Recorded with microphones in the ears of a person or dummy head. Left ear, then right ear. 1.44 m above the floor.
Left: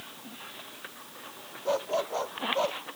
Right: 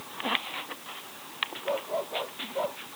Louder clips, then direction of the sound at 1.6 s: Left 5 dB; 75° left (ahead or behind).